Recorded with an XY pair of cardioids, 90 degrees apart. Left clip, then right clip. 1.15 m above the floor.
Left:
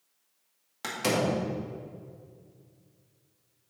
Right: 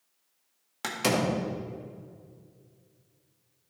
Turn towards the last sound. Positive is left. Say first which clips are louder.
# even
turn(degrees=-30)